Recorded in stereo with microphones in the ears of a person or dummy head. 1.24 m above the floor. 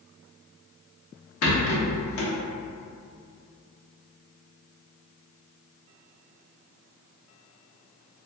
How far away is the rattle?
About 0.8 m.